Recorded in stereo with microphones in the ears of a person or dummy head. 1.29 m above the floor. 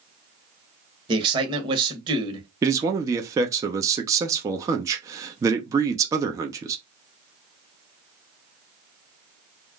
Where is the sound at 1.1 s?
25° right (ahead or behind), 1.1 m.